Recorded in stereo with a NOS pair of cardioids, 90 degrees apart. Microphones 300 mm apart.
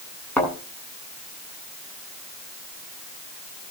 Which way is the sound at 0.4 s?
5° left.